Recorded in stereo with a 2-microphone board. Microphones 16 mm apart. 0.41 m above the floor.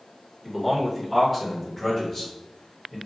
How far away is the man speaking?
About 1.4 m.